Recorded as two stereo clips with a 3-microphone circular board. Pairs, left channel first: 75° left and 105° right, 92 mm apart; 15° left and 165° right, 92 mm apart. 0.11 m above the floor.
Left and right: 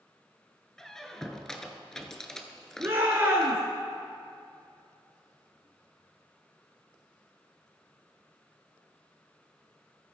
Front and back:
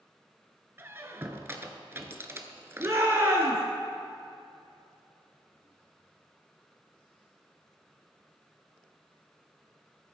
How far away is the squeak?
About 0.8 m.